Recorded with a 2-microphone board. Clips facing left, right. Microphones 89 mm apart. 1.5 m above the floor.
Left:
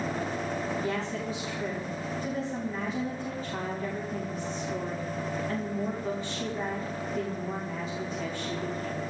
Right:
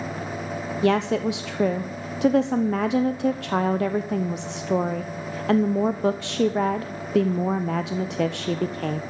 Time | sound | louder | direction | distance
0.8 | a woman speaking | right 10 dB | 75° right (ahead or behind) | 0.8 m